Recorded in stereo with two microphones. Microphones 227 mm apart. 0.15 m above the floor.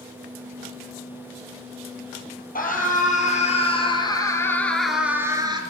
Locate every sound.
2.5 s a scream: 40° left (ahead or behind), 5 m; by 5.6 s 20° right (ahead or behind), 3 m